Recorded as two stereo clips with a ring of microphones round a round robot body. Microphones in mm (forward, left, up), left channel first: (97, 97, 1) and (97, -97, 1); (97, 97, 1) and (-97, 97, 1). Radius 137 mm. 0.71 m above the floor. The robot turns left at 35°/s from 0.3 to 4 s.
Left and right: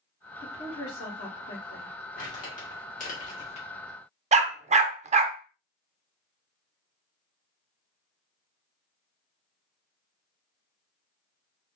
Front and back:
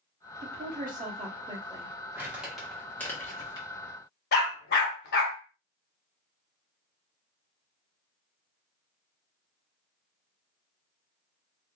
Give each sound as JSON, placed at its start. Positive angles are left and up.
{"t": 0.4, "sound": "a woman speaking", "azimuth_deg": 155, "distance_m": 1.3}
{"t": 2.1, "sound": "crumpling", "azimuth_deg": 105, "distance_m": 1.4}
{"t": 4.3, "sound": "a dog barking", "azimuth_deg": -40, "distance_m": 0.5}